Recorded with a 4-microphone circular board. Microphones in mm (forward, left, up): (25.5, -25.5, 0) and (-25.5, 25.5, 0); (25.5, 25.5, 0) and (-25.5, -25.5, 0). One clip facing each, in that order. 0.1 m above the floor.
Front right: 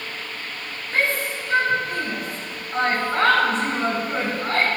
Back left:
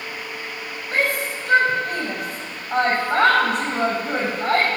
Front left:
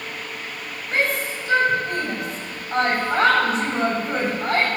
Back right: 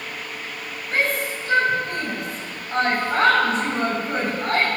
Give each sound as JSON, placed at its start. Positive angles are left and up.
{"t": 0.9, "sound": "a shout", "azimuth_deg": 115, "distance_m": 5.5}